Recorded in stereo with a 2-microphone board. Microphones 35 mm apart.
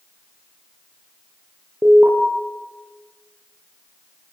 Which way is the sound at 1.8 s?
75° right (ahead or behind).